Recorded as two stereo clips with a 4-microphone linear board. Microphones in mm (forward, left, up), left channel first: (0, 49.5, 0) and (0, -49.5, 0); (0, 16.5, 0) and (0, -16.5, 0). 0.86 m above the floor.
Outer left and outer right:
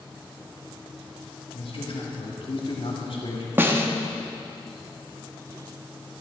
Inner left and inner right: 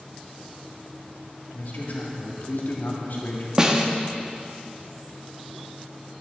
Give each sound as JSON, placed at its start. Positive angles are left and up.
{"t": 1.5, "sound": "a man speaking", "side_deg": 65, "distance_m": 1.6}
{"t": 3.6, "sound": "a snare drum", "side_deg": -20, "distance_m": 0.8}